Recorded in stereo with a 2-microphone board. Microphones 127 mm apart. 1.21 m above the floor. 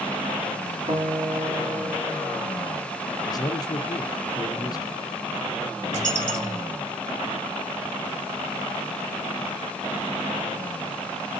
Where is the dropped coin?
75° right (ahead or behind), 5 m.